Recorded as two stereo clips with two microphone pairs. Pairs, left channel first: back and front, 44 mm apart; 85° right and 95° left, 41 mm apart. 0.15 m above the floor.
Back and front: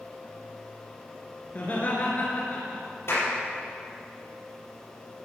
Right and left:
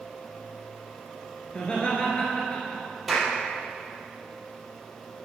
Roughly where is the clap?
Behind.